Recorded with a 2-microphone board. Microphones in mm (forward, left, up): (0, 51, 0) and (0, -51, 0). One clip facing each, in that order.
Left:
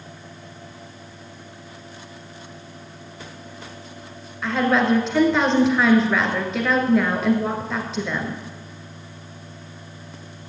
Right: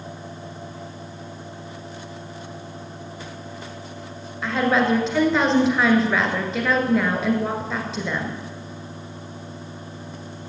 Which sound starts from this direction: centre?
A woman speaking, at 4.4 s.